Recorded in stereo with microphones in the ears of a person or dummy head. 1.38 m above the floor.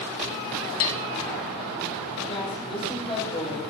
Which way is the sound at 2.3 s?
30° left (ahead or behind).